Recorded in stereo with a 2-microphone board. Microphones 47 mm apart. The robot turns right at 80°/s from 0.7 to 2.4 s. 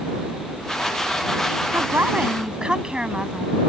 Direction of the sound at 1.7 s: 75° right.